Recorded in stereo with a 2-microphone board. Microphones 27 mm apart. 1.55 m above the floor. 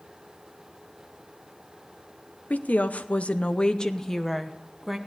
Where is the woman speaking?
80° left, 0.9 m; by 5.0 s 5° right (ahead or behind), 1.3 m.